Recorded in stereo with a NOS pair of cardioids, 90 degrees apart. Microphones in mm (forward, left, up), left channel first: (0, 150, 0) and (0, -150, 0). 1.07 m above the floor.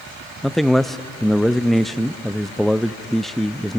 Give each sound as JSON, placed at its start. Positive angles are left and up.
{"t": 0.4, "sound": "a man speaking", "azimuth_deg": 0, "distance_m": 0.7}